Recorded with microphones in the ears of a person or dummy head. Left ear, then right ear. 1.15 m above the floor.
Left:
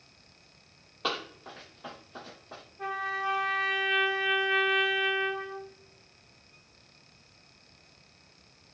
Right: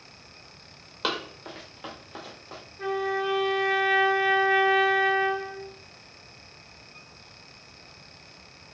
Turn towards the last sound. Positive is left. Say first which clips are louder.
# right 4 dB
turn(degrees=0)  # may be behind; listen again after turning